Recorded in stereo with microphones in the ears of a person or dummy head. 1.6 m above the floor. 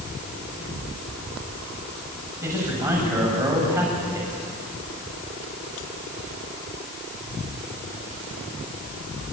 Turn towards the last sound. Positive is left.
turn(degrees=-15)  # may be behind; listen again after turning